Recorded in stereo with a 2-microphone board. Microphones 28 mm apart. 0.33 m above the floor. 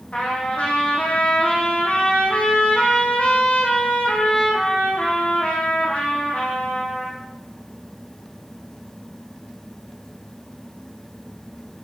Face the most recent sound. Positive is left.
turn(degrees=50)  # may be behind; listen again after turning